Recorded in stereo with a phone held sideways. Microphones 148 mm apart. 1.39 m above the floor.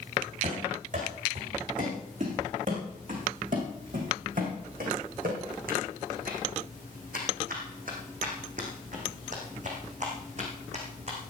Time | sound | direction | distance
0.4 | running footsteps | 55° right (ahead or behind) | 6.5 m